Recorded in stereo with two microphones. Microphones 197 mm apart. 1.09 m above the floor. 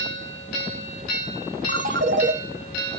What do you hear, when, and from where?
1.7 s a ringtone: 70° right (ahead or behind), 1.0 m